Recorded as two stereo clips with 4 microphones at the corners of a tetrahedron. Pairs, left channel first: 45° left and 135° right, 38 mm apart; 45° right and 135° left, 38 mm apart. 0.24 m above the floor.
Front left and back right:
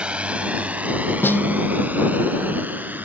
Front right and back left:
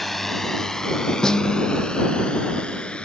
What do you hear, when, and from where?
0.0 s a drone: 130° right; by 3.1 s 105° right
1.2 s a snare drum: 30° left